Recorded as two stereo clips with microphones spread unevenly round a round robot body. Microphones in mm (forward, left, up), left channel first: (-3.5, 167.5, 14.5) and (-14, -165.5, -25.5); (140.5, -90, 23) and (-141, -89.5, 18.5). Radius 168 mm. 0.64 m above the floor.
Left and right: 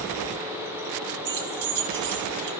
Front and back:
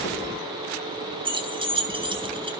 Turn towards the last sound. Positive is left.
turn(degrees=-105)